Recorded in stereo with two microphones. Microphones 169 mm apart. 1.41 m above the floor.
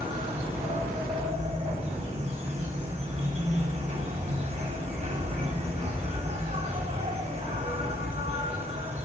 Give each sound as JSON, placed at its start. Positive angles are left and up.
{"t": 0.0, "sound": "an insect", "side_deg": -35, "distance_m": 4.0}